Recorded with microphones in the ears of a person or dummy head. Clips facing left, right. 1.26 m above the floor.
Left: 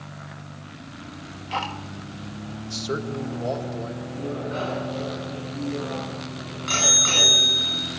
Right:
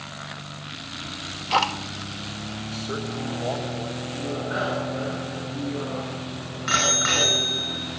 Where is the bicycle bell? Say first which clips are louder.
Even; 20° right (ahead or behind), 9.5 m.